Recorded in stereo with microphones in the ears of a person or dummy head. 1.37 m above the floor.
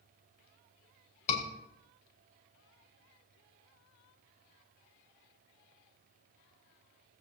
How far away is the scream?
About 5 m.